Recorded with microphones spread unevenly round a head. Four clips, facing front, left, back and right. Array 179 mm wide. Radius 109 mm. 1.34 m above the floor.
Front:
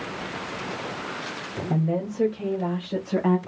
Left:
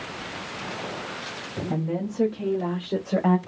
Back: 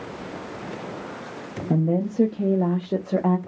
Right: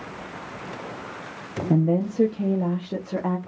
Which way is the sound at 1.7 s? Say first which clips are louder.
Right 7 dB, back 4 dB; 130° right.